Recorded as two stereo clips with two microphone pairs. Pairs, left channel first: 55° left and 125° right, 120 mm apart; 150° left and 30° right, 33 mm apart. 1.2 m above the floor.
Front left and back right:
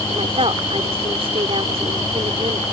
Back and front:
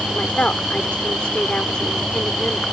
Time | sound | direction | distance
0.1 | a woman speaking | 160° right | ?